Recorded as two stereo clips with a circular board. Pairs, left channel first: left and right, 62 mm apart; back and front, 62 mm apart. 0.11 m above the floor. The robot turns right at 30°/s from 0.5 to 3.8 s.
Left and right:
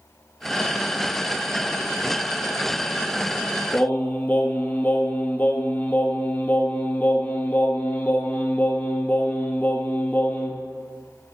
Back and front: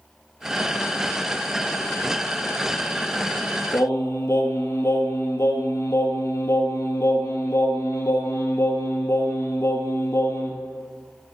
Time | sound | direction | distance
3.7 | singing | 145° left | 1.8 m